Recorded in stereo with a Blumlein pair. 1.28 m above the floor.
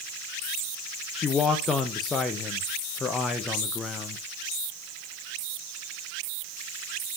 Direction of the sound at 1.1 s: 15° left.